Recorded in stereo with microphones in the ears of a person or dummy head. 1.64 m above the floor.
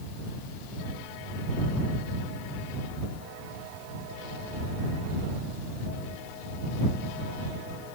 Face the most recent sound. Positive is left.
No sound to turn to.